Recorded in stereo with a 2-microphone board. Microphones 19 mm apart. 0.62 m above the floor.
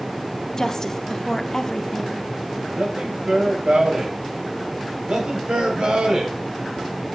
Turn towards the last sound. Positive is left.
turn(degrees=-75)  # may be behind; listen again after turning